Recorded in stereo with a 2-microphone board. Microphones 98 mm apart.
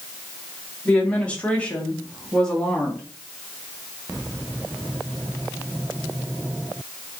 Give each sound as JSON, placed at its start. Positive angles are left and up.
{"t": 0.8, "sound": "a woman speaking", "side_deg": 15, "distance_m": 1.3}